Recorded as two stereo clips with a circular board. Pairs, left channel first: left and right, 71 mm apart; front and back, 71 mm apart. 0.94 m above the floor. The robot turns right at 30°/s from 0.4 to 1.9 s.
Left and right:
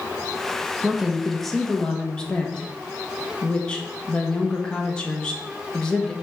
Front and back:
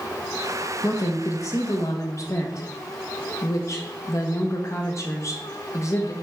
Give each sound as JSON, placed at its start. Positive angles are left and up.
{"t": 0.8, "sound": "a woman speaking", "azimuth_deg": -15, "distance_m": 1.0}